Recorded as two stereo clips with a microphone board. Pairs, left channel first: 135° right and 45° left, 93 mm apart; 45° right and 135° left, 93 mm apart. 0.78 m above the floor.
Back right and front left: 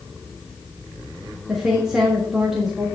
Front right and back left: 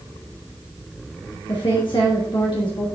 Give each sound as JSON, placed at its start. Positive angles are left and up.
{"t": 1.5, "sound": "a woman speaking", "azimuth_deg": -40, "distance_m": 1.3}